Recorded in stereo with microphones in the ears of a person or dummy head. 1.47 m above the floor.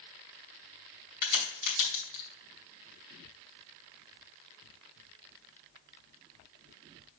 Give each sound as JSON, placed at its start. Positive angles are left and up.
{"t": 1.2, "sound": "a crack", "side_deg": 55, "distance_m": 2.5}